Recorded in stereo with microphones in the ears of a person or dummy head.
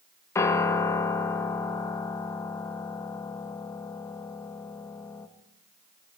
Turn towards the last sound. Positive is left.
turn(degrees=15)  # may be behind; listen again after turning